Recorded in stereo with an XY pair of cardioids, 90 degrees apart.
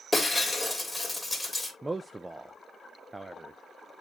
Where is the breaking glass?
20° left, 2.5 m.